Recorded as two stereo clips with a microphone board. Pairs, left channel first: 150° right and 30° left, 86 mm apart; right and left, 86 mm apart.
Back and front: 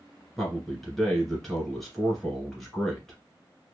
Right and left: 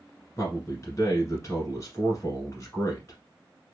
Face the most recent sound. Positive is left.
turn(degrees=-65)